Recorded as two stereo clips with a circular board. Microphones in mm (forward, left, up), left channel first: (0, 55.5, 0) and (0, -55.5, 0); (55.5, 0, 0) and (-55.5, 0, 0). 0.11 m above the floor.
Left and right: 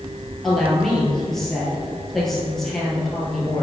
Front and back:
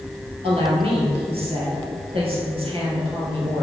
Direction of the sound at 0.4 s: 175° left.